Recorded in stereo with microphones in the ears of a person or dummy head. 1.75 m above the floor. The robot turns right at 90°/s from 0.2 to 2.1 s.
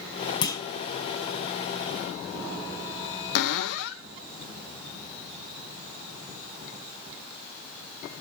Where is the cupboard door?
65° left (ahead or behind), 1.0 m.